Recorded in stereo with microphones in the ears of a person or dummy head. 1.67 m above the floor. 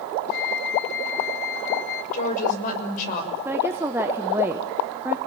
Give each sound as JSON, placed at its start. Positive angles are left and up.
{"t": 0.3, "sound": "a flute", "side_deg": 65, "distance_m": 1.4}
{"t": 2.1, "sound": "a woman speaking", "side_deg": 50, "distance_m": 6.5}
{"t": 3.5, "sound": "a woman speaking", "side_deg": -10, "distance_m": 1.3}